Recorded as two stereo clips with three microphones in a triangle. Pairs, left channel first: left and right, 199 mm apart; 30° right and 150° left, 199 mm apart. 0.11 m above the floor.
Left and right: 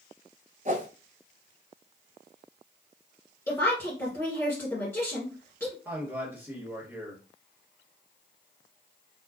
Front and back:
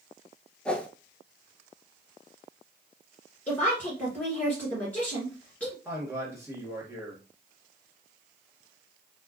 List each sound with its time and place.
0.7 s a whoosh: 115° right, 0.6 m
3.5 s a woman speaking: 35° left, 1.6 m
5.8 s a man speaking: 155° right, 1.7 m